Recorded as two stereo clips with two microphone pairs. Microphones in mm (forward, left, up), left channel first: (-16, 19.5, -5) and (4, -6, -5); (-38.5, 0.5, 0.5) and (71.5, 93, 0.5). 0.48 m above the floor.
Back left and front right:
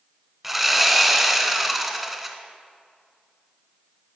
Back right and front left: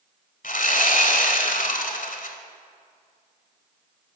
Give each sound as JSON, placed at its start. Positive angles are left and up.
{"t": 0.4, "sound": "sawing", "azimuth_deg": -135, "distance_m": 0.7}